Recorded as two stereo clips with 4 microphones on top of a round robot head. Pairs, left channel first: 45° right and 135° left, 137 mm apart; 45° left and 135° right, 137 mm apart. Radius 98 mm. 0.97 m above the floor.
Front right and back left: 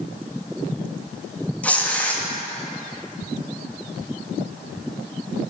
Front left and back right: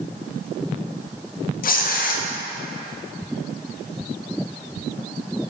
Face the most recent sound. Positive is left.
turn(degrees=35)